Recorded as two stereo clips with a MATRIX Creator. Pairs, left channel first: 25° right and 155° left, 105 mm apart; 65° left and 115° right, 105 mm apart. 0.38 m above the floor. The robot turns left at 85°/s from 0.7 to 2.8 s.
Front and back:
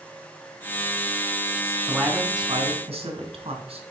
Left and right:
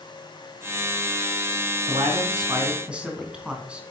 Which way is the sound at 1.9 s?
110° right.